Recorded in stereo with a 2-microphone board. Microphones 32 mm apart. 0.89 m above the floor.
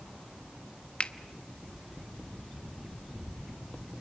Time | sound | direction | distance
1.0 | a finger snap | 40° left (ahead or behind) | 1.0 m